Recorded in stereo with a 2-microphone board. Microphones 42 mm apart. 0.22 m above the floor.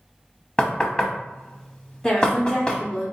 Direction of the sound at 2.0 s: 15° left (ahead or behind).